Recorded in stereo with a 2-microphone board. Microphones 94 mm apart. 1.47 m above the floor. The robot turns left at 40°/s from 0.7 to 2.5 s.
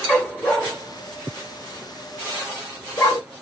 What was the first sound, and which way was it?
A dog barking, 10° left (ahead or behind).